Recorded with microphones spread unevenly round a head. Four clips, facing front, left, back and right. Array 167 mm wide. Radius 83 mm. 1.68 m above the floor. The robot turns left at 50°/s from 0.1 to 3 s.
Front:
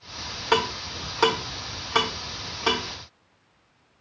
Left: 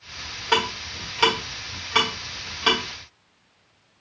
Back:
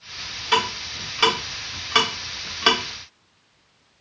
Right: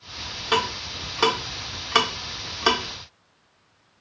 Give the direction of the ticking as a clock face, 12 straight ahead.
1 o'clock.